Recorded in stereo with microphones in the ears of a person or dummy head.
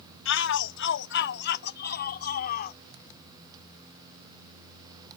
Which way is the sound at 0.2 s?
75° left (ahead or behind).